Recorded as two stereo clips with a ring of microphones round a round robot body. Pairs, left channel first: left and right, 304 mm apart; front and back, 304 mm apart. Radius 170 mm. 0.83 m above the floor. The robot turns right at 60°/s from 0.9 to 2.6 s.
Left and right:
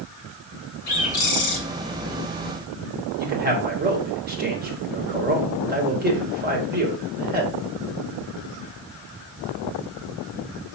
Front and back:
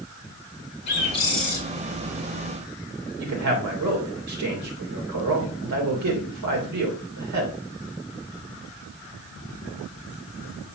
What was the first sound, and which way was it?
A bird, 60° left.